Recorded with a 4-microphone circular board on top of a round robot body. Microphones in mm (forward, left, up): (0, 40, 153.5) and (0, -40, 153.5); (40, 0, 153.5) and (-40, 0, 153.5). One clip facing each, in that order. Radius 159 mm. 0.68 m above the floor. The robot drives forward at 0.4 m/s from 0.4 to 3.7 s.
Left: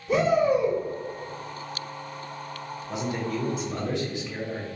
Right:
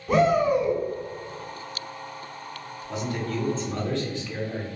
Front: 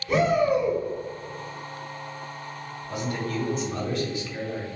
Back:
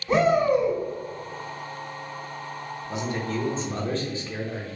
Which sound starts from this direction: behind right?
A shout, at 0.1 s.